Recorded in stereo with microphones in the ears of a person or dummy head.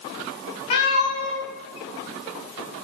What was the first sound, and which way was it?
A cat meowing, 35° left (ahead or behind).